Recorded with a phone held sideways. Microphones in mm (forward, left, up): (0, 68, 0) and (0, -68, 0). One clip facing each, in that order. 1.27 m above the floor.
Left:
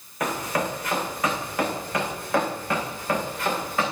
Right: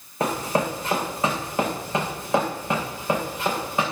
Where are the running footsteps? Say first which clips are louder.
Right 3 dB; 30° right (ahead or behind), 5.5 m; by 3.8 s 20° right (ahead or behind), 7 m.